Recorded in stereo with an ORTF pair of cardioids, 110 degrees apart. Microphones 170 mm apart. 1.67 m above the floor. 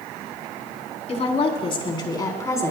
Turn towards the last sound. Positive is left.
turn(degrees=15)